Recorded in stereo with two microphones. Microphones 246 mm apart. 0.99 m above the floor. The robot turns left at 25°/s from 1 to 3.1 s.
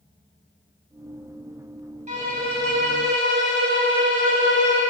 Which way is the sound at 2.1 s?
30° right (ahead or behind).